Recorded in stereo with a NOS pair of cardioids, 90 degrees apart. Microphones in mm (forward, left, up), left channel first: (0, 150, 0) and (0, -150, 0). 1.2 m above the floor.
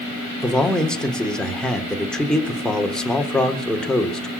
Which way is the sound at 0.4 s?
Straight ahead.